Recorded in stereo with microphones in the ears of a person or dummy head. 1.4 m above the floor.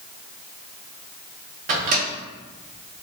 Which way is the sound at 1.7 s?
40° right (ahead or behind).